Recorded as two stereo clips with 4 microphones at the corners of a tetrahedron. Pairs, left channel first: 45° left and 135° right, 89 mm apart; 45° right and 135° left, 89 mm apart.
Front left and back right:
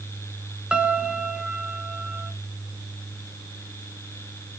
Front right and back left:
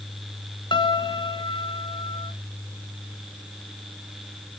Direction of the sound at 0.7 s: 60° right.